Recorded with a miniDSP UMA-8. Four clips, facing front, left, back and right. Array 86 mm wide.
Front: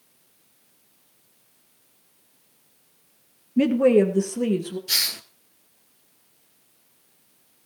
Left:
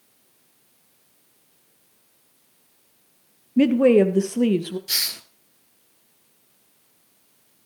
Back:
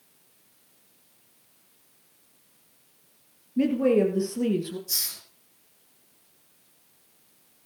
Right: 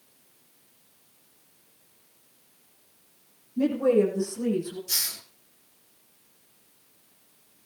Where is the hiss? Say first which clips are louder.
Left 5 dB, front 11 dB; 30° left, 1.4 m.